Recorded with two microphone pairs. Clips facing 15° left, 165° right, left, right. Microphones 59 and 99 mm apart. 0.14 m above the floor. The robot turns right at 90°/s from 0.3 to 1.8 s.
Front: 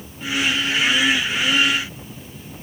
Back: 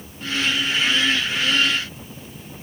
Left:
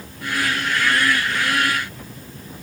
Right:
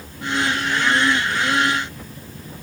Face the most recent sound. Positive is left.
No sound to turn to.